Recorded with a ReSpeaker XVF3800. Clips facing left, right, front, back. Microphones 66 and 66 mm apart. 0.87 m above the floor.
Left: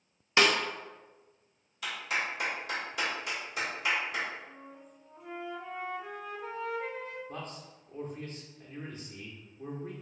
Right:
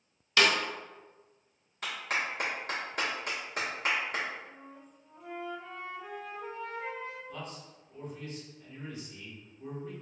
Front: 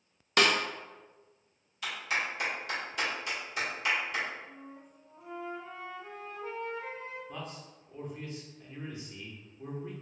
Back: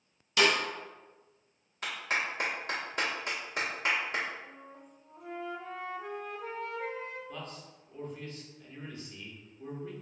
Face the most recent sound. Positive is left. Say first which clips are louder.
# left 1 dB, front 1 dB
turn(degrees=65)